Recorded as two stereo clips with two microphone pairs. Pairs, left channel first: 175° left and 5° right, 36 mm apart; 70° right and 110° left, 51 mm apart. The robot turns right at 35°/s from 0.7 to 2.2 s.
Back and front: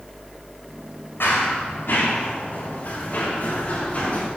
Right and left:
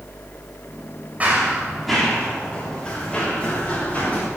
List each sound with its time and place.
1.2 s running footsteps: 170° left, 6.5 m; by 4.2 s 130° right, 8 m